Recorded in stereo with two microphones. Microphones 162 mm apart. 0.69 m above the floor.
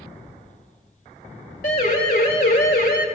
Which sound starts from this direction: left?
A siren, at 1.6 s.